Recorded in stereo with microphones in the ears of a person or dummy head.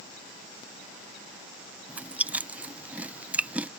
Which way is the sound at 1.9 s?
15° right (ahead or behind).